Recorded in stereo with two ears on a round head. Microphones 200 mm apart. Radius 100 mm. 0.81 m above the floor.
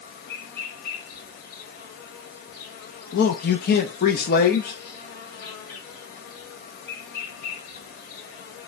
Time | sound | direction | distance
0.0 | an insect | 40° left (ahead or behind) | 2.0 m
3.1 | a man speaking | 40° left (ahead or behind) | 0.5 m